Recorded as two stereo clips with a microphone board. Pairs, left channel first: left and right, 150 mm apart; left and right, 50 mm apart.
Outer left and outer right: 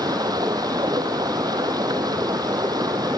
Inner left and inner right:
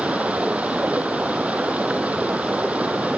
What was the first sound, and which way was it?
Running water, 25° right (ahead or behind).